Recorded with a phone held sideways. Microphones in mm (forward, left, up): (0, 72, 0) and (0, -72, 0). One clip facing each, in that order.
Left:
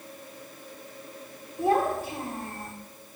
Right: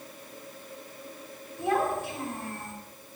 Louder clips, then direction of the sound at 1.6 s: Left 3 dB; 35° left (ahead or behind).